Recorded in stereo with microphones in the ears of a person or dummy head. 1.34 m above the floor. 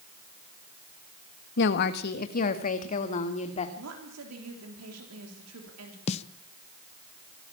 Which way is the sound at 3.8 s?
85° right.